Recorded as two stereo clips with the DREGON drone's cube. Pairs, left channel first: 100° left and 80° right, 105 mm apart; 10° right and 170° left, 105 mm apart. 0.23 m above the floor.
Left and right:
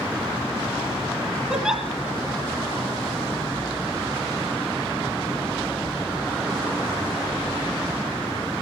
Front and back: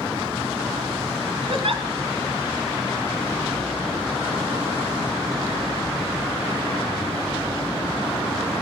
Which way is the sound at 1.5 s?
165° right.